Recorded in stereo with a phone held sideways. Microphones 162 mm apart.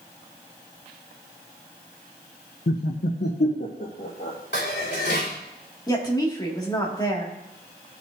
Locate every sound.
2.7 s laughter: 65° left (ahead or behind), 0.6 m; by 4.4 s 75° left (ahead or behind), 1.8 m
4.5 s dishes clattering: 85° left, 2.5 m
5.9 s a woman speaking: 25° left (ahead or behind), 2 m